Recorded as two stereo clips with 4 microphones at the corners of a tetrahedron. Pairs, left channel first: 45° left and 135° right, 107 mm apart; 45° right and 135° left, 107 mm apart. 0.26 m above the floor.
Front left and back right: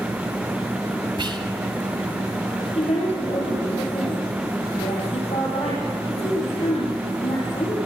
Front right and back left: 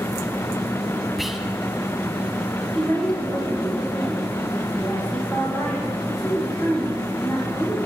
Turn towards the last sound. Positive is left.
turn(degrees=40)